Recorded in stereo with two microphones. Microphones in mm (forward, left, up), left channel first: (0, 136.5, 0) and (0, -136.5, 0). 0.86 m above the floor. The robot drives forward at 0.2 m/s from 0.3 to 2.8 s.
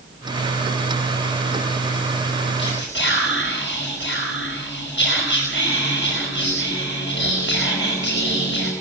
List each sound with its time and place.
2.6 s whispering: 45° left (ahead or behind), 5 m